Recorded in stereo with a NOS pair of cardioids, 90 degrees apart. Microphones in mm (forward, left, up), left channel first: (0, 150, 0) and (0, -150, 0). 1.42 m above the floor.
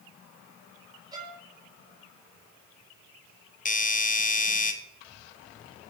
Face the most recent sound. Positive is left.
turn(degrees=25)